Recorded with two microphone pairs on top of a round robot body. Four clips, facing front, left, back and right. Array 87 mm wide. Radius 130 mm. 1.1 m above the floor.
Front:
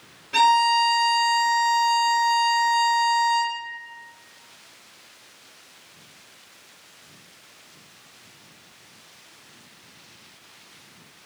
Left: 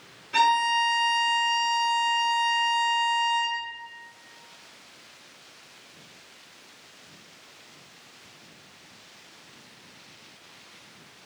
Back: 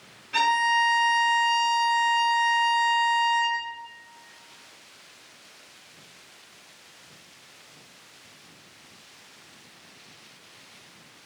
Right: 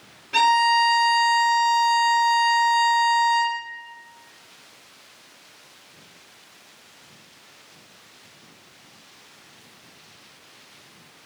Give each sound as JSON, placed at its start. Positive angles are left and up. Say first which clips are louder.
{"t": 0.3, "sound": "a violin", "louder": "right 4 dB, front 5 dB", "azimuth_deg": -50, "distance_m": 1.0}